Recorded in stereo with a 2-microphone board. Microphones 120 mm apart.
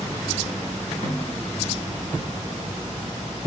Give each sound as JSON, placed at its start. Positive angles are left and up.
{"t": 1.0, "sound": "a snare drum", "side_deg": 65, "distance_m": 2.5}